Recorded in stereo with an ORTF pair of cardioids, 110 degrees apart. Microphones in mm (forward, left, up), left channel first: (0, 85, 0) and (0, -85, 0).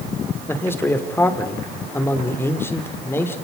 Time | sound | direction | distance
0.5 | a man speaking | 15° left | 3 m